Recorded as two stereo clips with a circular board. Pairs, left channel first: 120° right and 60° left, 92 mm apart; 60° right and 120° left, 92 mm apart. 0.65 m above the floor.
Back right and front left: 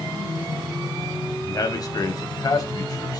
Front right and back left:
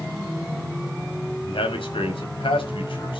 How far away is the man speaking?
About 5 m.